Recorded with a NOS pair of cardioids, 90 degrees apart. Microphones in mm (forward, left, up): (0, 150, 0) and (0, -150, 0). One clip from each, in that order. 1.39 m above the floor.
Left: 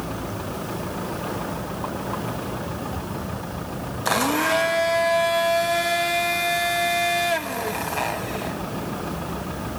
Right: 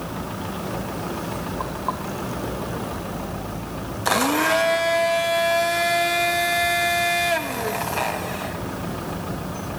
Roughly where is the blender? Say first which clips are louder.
Right 1 dB; ahead.